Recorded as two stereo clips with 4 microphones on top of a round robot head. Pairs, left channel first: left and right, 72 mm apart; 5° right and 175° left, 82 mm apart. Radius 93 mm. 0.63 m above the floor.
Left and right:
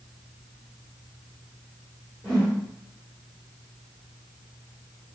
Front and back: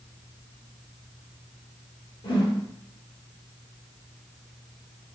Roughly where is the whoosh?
Ahead.